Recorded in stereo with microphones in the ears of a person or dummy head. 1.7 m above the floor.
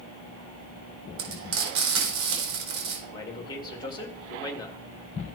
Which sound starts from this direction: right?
Frying, at 1.2 s.